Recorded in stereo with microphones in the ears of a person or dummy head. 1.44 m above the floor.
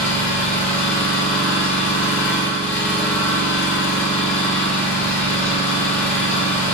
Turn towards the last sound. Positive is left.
turn(degrees=15)  # may be behind; listen again after turning